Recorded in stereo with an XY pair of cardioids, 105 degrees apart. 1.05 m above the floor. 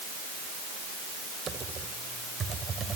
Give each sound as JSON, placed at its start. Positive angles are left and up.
{"t": 1.5, "sound": "typing on a keyboard", "azimuth_deg": -45, "distance_m": 3.0}